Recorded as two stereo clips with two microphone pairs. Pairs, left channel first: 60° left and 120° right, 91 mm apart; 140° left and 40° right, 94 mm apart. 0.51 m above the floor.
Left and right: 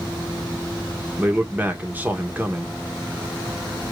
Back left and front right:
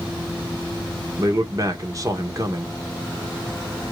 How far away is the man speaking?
About 1.1 m.